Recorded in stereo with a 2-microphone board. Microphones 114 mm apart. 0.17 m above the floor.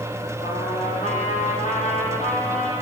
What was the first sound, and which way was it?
A trumpet, 75° left (ahead or behind).